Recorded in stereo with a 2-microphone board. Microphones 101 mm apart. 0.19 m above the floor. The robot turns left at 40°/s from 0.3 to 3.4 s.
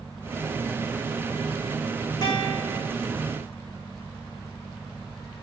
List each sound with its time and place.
2.2 s a guitar: 45° left (ahead or behind), 4.5 m; by 2.9 s 70° left (ahead or behind), 4.5 m